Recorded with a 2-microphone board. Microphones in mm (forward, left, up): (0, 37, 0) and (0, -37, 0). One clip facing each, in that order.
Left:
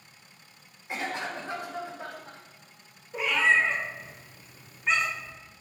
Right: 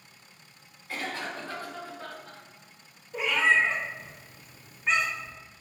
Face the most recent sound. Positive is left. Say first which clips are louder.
# even
turn(degrees=0)  # may be behind; listen again after turning